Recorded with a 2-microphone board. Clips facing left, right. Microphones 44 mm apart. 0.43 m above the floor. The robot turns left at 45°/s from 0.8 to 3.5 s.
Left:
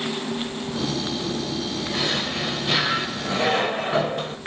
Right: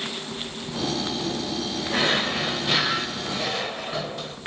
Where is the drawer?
145° right, 0.7 m; by 4.4 s 140° left, 0.7 m.